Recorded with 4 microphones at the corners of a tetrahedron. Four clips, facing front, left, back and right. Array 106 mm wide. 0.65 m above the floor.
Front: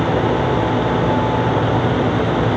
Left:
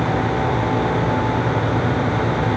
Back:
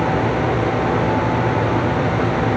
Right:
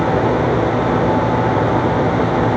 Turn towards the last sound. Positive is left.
No sound to turn to.